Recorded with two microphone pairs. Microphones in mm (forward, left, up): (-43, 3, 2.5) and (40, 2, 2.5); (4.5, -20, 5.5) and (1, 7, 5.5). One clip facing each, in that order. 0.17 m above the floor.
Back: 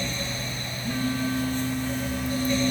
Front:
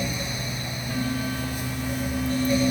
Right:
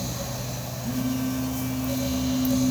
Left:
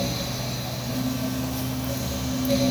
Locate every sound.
0.8 s a phone buzzing: 125° right, 9 m